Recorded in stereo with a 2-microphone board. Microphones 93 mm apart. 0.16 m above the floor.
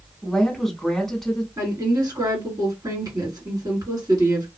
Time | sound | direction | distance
0.2 | a woman speaking | 5° left (ahead or behind) | 1.0 m
1.6 | a woman speaking | 45° right (ahead or behind) | 1.9 m